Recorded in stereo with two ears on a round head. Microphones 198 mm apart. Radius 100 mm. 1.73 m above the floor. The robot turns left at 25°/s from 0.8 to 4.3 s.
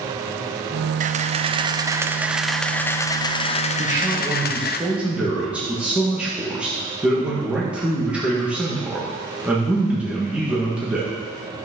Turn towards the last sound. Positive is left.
turn(degrees=-5)  # may be behind; listen again after turning